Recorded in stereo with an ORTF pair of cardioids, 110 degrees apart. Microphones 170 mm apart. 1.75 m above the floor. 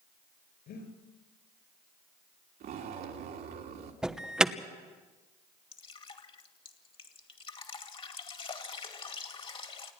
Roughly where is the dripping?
Ahead left.